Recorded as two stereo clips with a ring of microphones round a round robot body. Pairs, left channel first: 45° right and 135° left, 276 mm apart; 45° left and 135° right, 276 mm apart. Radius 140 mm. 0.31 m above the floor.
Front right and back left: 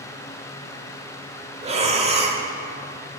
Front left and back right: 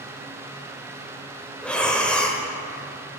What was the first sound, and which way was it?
Breathing, 125° left.